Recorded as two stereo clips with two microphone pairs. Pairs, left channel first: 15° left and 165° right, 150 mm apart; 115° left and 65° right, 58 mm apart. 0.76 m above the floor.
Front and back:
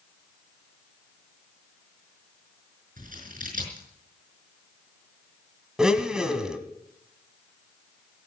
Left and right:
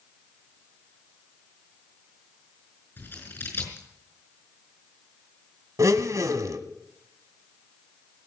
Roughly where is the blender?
Right.